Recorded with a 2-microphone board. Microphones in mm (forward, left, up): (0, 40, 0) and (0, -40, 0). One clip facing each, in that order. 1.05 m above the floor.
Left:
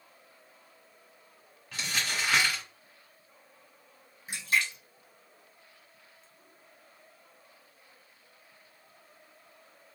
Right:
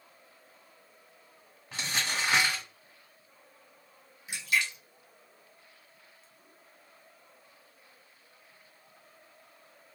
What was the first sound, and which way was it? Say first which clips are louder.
Crumpling: even; 30° right (ahead or behind).